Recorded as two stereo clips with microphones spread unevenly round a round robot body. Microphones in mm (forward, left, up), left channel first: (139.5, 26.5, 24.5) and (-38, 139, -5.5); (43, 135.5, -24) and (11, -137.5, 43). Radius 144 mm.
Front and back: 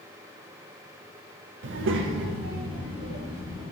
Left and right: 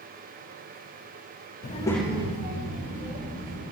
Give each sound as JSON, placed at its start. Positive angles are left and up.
{"t": 1.6, "sound": "a child speaking", "azimuth_deg": 130, "distance_m": 0.7}